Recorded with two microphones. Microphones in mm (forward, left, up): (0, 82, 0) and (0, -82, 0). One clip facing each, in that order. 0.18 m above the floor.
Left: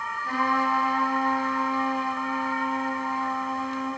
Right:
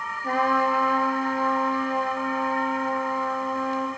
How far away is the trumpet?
About 3 m.